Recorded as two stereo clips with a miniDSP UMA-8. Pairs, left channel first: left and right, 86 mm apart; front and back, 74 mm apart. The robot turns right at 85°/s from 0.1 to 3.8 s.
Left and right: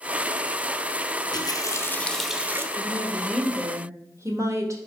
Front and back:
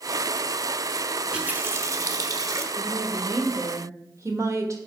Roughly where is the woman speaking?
Behind left.